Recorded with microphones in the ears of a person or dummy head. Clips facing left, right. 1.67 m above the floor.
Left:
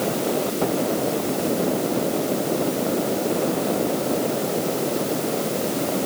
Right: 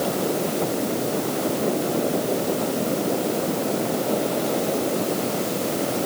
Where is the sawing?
No sawing in this recording.